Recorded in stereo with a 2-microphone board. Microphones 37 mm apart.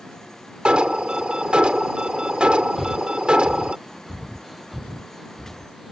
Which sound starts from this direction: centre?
Breathing, at 2.8 s.